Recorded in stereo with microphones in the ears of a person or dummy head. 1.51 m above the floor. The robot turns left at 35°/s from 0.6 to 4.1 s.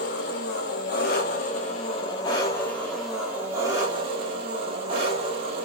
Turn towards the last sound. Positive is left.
turn(degrees=-40)